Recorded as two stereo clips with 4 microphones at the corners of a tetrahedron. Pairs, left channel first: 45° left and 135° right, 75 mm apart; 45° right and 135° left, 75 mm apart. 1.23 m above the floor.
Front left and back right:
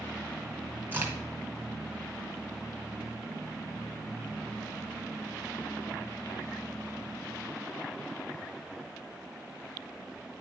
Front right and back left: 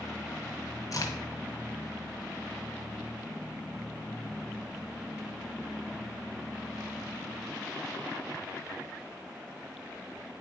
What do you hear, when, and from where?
0.9 s a crack: 75° right, 2 m